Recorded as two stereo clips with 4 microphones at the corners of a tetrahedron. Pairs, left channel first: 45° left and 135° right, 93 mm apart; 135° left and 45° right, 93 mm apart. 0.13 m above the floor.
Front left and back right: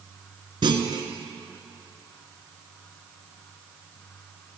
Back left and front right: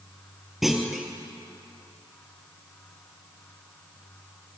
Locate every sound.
0.6 s a clunk: 130° right, 1.4 m